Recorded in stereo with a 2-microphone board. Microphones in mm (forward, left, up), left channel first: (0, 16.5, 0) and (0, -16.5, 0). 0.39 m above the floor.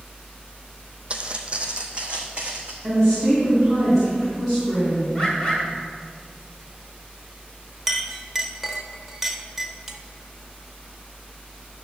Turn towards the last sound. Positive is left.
turn(degrees=-10)  # may be behind; listen again after turning